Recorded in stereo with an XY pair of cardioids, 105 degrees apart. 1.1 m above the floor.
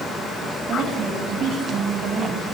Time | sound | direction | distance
0.6 | a woman speaking | 65° right | 7.5 m